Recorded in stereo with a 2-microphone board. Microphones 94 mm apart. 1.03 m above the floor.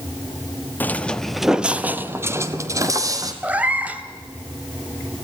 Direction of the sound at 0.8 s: 20° left (ahead or behind).